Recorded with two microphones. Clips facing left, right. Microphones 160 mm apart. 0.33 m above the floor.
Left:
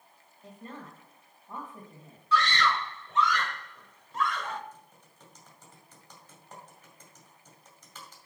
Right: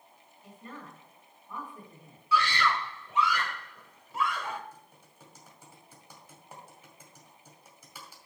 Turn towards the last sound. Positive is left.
turn(degrees=-10)  # may be behind; listen again after turning